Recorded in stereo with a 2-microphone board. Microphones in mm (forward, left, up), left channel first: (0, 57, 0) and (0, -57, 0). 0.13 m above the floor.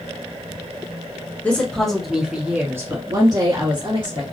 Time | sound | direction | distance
1.4 | a woman speaking | 15° left (ahead or behind) | 1.1 m